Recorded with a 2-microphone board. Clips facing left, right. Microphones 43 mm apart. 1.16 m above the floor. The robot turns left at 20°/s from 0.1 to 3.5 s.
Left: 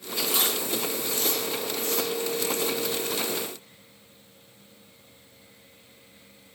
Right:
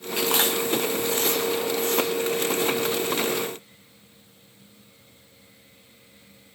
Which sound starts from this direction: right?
Chewing, at 0.2 s.